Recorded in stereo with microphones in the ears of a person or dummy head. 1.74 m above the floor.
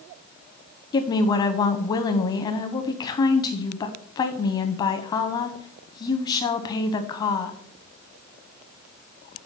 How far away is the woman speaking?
About 0.7 m.